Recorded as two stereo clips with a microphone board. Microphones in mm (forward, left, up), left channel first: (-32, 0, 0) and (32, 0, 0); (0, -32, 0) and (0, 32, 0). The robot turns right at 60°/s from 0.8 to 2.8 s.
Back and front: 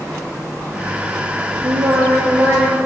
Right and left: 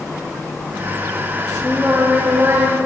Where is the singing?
5° right, 6.5 m; by 2.8 s 60° left, 6.5 m.